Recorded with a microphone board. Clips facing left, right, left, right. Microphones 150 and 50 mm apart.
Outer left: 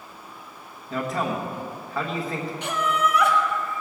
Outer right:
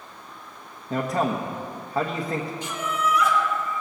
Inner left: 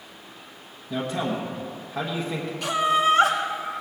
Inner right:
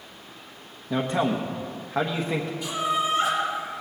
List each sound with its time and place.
0.9 s a man speaking: 30° right (ahead or behind), 1.2 m
2.6 s laughter: 60° left (ahead or behind), 1.9 m